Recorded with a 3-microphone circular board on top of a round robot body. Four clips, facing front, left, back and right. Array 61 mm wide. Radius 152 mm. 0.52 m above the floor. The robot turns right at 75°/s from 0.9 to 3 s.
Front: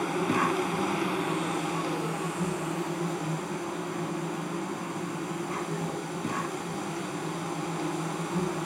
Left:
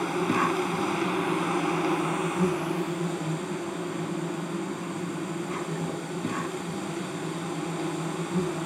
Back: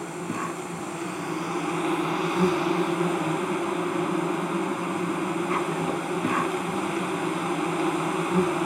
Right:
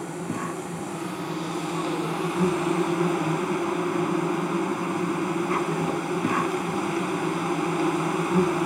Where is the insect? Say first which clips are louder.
Left 6 dB, front 4 dB; 65° left, 1.9 m; by 8.7 s 140° right, 1.9 m.